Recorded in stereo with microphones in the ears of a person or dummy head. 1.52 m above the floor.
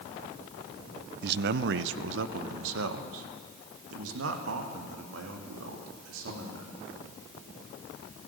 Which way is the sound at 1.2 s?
55° right (ahead or behind).